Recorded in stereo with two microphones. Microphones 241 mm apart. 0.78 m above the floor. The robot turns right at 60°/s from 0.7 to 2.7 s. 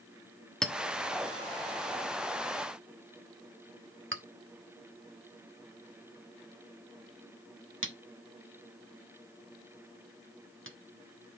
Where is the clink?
5° left (ahead or behind), 1.0 m; by 10.8 s 55° right (ahead or behind), 1.0 m.